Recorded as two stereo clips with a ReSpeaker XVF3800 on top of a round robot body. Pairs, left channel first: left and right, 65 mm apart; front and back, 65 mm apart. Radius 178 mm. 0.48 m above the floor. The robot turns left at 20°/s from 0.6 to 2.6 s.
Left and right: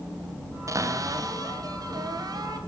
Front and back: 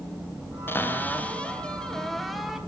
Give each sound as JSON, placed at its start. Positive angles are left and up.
{"t": 0.7, "sound": "a cupboard door", "azimuth_deg": -55, "distance_m": 4.0}